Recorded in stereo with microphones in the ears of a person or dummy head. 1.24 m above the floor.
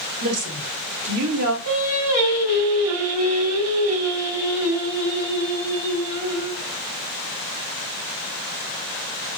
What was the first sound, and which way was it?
A woman speaking, 85° right.